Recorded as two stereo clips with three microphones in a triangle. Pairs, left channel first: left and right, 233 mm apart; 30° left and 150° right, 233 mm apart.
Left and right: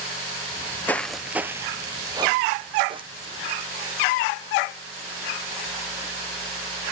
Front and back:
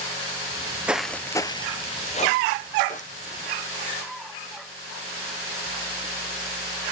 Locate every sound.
0.5 s footsteps: 150° left, 0.6 m; by 3.5 s 25° right, 1.4 m